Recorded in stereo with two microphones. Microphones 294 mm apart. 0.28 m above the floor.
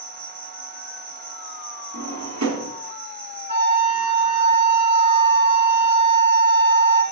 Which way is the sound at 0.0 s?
40° left (ahead or behind).